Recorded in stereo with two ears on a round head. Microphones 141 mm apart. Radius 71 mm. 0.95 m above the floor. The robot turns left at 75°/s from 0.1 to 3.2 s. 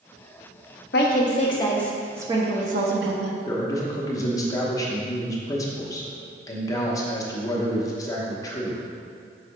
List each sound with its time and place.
0.9 s a woman speaking: 70° left (ahead or behind), 1.0 m; by 3.4 s 75° right (ahead or behind), 1.0 m
3.5 s a man speaking: 20° left (ahead or behind), 0.9 m